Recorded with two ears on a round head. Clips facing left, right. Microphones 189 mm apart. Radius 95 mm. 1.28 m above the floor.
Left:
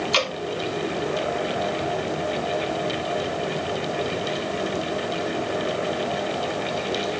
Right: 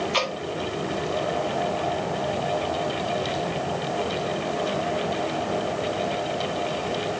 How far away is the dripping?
About 3 m.